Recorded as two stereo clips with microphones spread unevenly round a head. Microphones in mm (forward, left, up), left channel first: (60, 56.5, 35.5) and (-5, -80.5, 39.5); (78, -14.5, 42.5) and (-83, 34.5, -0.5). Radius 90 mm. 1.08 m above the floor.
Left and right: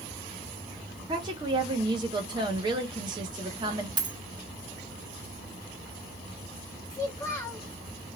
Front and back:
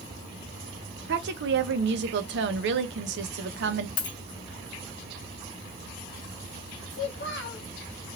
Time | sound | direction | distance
1.1 | a woman speaking | straight behind | 0.7 m
4.0 | a dropped coin | 55° right | 0.9 m
6.9 | a child speaking | 5° right | 1.0 m